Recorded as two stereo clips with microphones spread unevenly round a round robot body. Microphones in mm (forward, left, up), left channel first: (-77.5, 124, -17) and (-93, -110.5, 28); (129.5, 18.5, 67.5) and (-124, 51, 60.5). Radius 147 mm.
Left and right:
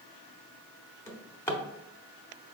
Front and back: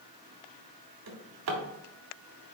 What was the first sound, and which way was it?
A drawer, 160° left.